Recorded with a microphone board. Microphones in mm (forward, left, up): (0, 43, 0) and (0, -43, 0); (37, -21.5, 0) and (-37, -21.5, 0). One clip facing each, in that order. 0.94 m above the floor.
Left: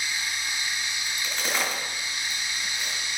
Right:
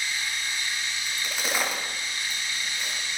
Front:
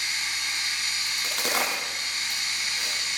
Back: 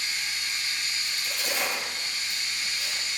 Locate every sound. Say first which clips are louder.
0.0 s running water: even, front 2 dB; 15° left, 3.5 m
1.1 s a crack: even, front 5 dB; 5° right, 5.5 m